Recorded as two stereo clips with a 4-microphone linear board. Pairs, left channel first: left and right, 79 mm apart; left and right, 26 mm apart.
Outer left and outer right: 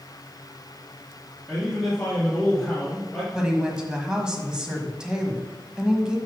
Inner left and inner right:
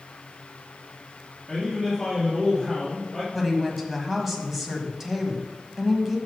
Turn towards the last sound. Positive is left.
turn(degrees=-10)  # may be behind; listen again after turning